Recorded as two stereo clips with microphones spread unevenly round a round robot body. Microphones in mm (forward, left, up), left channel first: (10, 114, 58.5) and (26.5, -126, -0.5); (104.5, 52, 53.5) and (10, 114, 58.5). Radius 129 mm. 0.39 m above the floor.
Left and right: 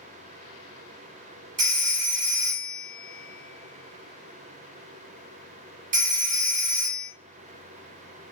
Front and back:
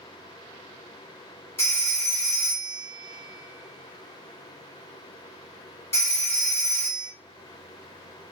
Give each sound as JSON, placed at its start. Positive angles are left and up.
{"t": 1.6, "sound": "a phone ringing", "azimuth_deg": -85, "distance_m": 0.8}